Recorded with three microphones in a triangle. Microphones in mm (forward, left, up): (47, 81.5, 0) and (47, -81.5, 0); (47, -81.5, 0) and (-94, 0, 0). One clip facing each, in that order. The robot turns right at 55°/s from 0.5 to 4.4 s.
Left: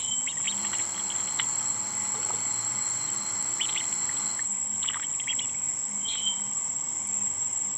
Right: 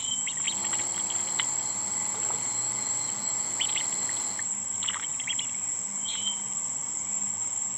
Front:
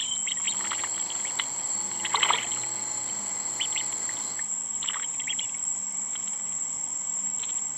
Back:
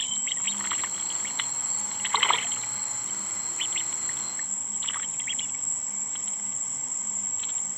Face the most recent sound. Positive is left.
turn(degrees=-85)